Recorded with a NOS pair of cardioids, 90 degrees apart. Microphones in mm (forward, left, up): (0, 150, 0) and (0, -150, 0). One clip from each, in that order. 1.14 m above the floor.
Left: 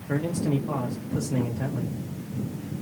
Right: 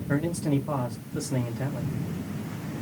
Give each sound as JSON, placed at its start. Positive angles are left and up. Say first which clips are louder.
{"t": 0.1, "sound": "a man speaking", "louder": "even", "azimuth_deg": 0, "distance_m": 0.6}